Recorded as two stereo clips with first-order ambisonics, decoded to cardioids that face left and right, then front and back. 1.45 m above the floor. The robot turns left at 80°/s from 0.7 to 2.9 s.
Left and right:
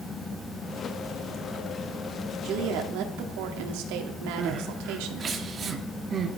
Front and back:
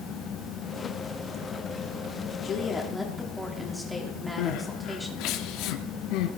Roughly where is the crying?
Ahead right.